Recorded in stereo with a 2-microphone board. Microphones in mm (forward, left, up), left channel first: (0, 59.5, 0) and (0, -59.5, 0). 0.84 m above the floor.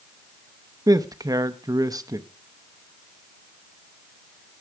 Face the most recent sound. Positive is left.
turn(degrees=-30)  # may be behind; listen again after turning